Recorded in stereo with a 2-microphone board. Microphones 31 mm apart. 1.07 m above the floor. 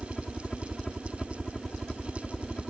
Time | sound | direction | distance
0.0 | a helicopter | 20° left (ahead or behind) | ?